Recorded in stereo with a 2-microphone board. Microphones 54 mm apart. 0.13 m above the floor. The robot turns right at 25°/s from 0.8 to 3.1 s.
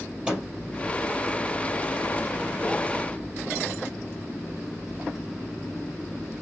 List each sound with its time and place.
0.3 s a microwave: 20° right (ahead or behind), 3 m